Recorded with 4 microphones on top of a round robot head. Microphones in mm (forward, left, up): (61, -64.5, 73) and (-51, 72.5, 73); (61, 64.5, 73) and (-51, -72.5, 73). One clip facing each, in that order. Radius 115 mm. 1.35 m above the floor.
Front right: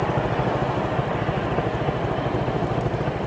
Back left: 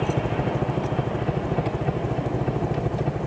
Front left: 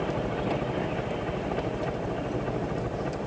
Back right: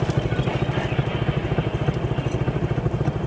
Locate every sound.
0.0 s a helicopter: 150° right